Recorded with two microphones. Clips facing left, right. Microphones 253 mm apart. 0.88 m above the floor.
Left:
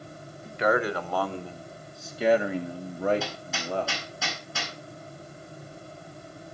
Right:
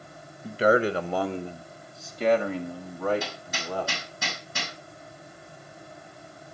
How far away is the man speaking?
About 1.0 m.